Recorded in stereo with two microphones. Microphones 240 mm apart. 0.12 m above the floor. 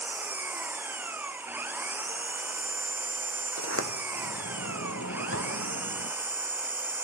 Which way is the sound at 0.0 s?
10° right (ahead or behind).